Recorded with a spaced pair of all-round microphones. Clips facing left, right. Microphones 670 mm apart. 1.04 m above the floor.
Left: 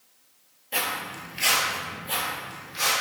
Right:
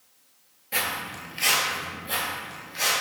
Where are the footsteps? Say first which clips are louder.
Left 1 dB; 35° right (ahead or behind), 1.2 m; by 2.9 s 40° left (ahead or behind), 3 m.